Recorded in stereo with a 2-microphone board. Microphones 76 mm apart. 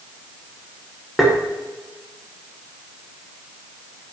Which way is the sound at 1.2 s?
5° right (ahead or behind).